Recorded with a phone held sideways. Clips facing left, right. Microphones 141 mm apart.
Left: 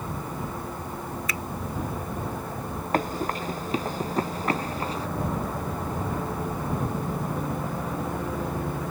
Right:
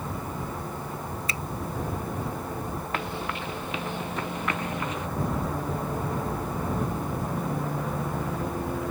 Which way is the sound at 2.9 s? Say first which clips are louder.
Left 9 dB; 40° left (ahead or behind).